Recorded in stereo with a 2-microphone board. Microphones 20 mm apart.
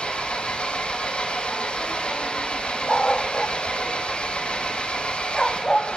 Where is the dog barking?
30° left (ahead or behind), 0.5 m.